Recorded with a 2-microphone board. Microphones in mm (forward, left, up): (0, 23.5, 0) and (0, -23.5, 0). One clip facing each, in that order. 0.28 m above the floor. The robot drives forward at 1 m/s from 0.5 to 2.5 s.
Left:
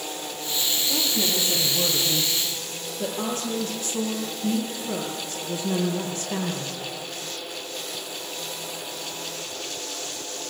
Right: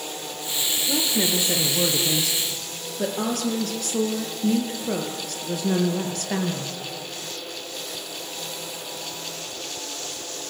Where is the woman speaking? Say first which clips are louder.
Right 4 dB; 80° right, 6.5 m; by 6.7 s 75° right (ahead or behind), 7 m.